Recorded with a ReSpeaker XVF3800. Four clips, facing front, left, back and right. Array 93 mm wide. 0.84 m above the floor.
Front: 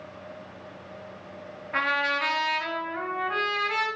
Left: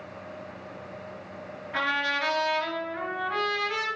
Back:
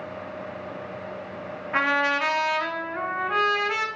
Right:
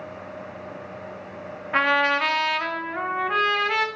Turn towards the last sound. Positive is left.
turn(degrees=-110)